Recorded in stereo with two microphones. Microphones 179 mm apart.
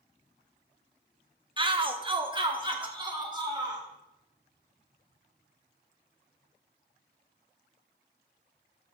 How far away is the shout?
About 0.8 m.